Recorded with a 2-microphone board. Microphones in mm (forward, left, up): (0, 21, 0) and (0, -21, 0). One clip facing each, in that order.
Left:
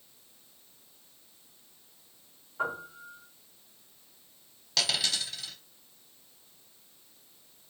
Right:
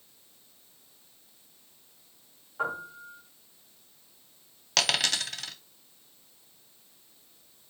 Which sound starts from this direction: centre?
A piano, at 2.6 s.